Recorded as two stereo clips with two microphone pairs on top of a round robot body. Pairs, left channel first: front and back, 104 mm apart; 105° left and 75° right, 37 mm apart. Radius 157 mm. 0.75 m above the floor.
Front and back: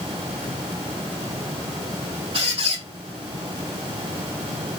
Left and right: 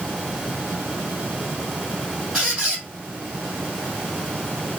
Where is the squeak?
155° left, 0.7 m.